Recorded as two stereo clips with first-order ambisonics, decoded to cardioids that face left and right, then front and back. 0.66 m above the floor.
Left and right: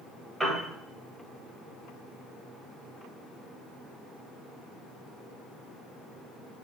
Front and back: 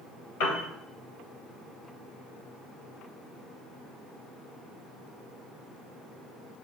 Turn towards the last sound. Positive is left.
turn(degrees=0)